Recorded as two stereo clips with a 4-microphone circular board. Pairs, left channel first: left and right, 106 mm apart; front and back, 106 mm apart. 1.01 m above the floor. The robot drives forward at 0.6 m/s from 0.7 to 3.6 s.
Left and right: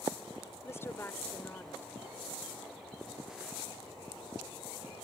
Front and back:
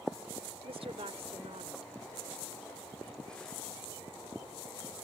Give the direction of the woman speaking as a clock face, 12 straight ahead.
7 o'clock.